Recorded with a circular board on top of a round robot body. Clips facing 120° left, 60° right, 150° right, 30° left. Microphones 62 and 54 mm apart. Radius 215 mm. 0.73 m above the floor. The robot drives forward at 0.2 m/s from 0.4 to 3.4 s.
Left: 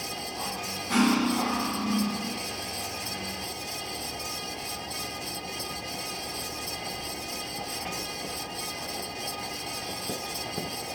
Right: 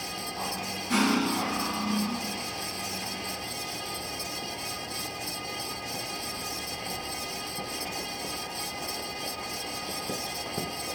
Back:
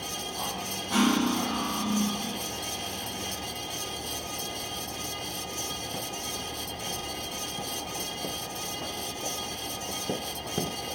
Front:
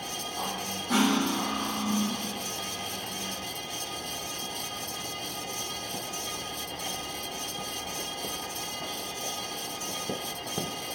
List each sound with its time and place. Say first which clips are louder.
0.9 s cutlery clinking: left 2 dB, back 1 dB; 30° left, 0.9 m; by 2.3 s 45° left, 0.7 m